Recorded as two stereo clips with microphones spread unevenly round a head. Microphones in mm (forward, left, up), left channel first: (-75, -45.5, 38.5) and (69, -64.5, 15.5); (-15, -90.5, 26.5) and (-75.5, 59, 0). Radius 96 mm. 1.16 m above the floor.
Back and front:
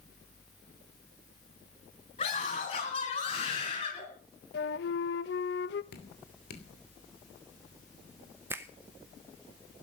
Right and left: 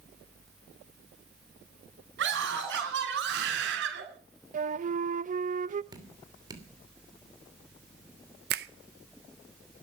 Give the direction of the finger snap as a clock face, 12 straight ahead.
10 o'clock.